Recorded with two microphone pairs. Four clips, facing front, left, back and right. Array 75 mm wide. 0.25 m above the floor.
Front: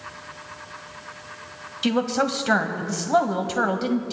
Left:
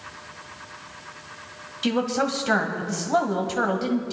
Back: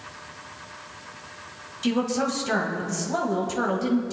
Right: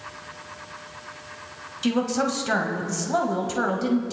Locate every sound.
1.8 s a woman speaking: 10° left, 1.4 m